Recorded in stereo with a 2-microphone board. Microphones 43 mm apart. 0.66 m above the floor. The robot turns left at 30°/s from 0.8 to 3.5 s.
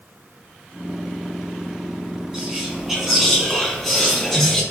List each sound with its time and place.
2.3 s whispering: 160° right, 1.1 m; by 4.6 s 165° left, 1.1 m